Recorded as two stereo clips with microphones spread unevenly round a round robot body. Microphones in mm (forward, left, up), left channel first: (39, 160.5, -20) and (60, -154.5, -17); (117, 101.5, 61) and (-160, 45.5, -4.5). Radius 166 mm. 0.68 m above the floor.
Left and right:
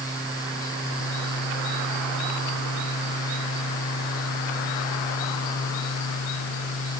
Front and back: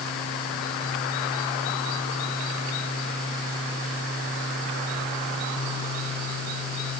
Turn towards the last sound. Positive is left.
No sound to turn to.